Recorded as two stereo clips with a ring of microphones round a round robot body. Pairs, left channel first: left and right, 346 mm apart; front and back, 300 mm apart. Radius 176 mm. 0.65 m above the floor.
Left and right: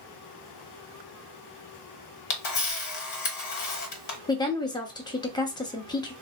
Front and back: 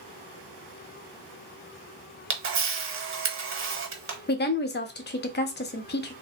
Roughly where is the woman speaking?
Ahead.